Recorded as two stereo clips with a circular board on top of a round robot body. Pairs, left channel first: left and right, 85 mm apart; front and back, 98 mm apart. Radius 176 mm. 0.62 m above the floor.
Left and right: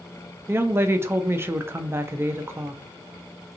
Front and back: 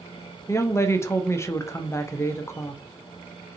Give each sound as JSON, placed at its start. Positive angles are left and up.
{"t": 0.5, "sound": "a woman speaking", "azimuth_deg": -45, "distance_m": 0.6}